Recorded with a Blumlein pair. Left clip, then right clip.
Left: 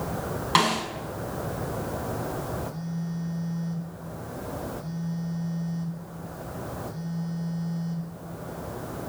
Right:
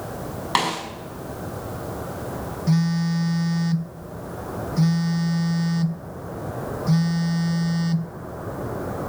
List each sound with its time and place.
0.6 s a snare drum: 5° right, 5.5 m
2.7 s a phone buzzing: 45° right, 0.6 m